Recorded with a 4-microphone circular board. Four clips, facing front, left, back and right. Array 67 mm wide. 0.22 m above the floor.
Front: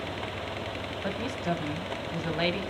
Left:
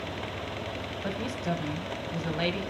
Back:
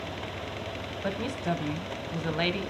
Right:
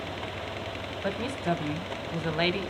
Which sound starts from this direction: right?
A woman speaking, at 1.0 s.